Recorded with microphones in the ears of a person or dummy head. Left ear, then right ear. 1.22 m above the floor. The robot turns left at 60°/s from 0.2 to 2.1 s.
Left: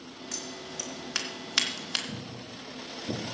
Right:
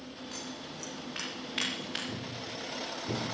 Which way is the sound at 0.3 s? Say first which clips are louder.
Left 5 dB; 25° left (ahead or behind).